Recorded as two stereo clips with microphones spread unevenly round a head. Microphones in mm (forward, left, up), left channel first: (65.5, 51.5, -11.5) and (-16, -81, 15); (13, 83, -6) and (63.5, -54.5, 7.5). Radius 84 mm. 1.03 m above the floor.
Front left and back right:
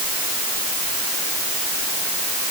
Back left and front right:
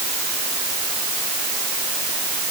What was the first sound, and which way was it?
Only background noise.